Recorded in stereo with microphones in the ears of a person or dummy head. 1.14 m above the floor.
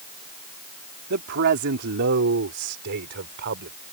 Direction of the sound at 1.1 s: 65° right (ahead or behind).